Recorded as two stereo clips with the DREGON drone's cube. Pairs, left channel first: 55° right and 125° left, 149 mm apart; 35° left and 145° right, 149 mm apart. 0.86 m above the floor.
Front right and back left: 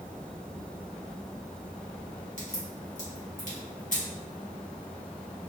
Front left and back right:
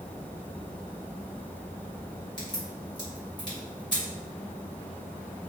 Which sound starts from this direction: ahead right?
A crack, at 2.4 s.